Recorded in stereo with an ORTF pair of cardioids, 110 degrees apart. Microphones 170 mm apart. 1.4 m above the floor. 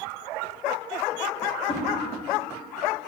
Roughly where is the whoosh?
Ahead left.